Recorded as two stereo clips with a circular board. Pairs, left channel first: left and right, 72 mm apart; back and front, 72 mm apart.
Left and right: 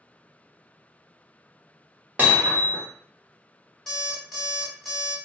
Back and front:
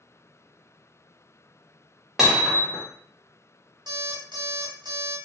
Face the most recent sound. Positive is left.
turn(degrees=5)